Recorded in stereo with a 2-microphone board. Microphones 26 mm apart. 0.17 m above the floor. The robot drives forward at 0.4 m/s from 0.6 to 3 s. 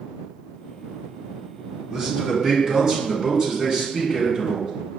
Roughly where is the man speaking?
Right.